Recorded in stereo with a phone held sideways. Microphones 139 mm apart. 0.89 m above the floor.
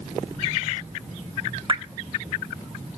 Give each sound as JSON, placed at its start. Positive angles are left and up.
{"t": 1.7, "sound": "dripping", "side_deg": -35, "distance_m": 1.0}